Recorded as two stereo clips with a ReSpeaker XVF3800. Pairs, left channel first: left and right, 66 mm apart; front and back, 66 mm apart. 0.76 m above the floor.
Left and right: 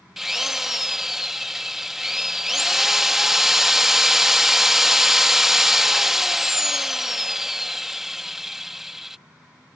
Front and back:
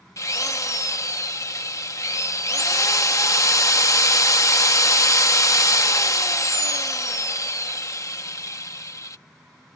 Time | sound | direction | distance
0.2 | a drill | 5° right | ?